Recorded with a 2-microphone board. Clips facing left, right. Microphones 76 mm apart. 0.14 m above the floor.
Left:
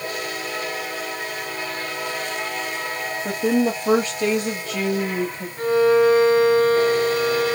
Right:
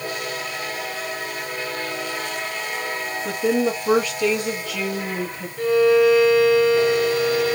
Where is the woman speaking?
35° left (ahead or behind), 4 m.